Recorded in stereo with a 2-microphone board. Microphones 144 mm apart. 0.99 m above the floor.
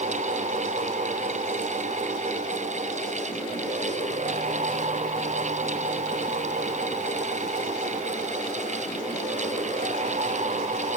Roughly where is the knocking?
No knocking in this recording.